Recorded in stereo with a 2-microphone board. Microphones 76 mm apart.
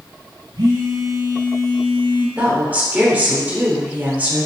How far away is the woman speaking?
About 0.8 m.